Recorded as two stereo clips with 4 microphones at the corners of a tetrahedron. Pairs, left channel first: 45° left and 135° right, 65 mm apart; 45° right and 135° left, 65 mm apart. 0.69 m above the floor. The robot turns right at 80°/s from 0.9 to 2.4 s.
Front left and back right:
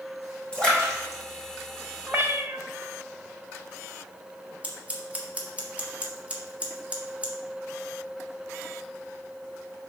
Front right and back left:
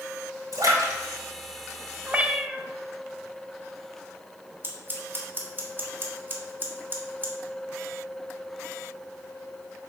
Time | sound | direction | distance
0.5 | a splash | 120° left | 3 m
2.1 | a cat meowing | 175° right | 0.6 m
4.6 | scissors | 170° left | 1.3 m